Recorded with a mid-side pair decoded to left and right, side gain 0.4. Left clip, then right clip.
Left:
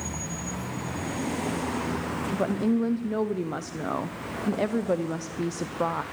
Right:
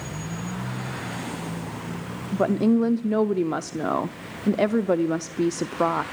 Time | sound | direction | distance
2.3 | a woman speaking | 40° right | 0.6 m